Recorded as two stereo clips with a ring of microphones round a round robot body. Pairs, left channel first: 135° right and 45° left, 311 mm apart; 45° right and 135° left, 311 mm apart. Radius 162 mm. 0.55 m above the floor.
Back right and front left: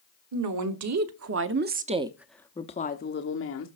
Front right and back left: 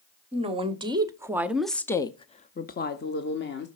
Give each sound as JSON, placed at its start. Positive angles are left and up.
{"t": 0.3, "sound": "a woman speaking", "azimuth_deg": 65, "distance_m": 1.4}